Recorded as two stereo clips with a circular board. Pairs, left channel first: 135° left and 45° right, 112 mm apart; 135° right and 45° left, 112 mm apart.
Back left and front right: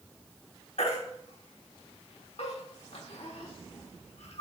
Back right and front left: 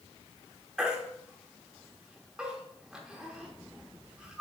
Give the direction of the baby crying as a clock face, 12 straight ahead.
8 o'clock.